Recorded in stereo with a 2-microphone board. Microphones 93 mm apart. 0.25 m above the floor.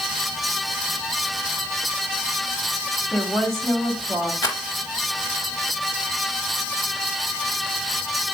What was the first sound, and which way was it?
A woman speaking, centre (ahead or behind).